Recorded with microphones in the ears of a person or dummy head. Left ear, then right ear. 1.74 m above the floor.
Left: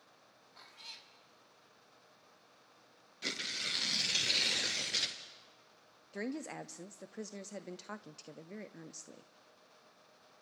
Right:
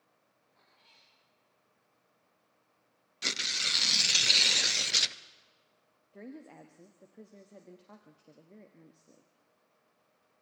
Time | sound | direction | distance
0.6 | a cat meowing | 60° left (ahead or behind) | 2 m
3.2 | tearing paper | 35° right (ahead or behind) | 0.7 m
6.1 | a woman speaking | 55° left (ahead or behind) | 0.6 m